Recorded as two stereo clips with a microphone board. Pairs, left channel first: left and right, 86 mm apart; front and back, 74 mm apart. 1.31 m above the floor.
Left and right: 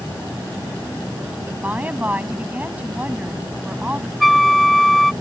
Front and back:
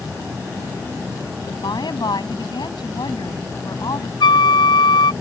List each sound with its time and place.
1.5 s a woman speaking: 20° right
4.2 s a flute: straight ahead